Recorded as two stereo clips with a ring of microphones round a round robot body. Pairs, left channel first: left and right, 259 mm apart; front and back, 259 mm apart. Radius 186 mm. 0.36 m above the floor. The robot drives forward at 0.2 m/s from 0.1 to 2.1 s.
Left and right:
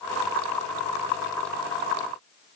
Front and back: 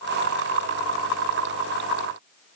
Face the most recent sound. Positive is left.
No sound to turn to.